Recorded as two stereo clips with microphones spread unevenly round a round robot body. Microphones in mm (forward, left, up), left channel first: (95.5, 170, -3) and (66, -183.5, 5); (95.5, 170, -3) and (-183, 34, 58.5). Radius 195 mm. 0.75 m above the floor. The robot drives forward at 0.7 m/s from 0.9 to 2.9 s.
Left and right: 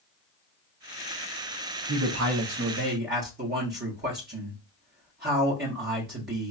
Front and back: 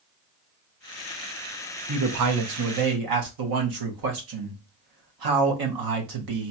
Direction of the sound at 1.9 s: 125° right.